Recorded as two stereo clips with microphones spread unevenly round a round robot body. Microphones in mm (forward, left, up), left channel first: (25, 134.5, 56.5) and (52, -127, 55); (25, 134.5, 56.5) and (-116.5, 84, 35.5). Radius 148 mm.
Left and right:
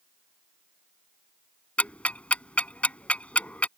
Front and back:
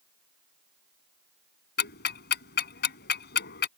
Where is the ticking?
10° left.